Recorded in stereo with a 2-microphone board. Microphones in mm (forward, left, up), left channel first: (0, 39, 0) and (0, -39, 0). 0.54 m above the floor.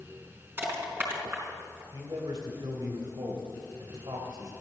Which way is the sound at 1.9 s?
65° right (ahead or behind).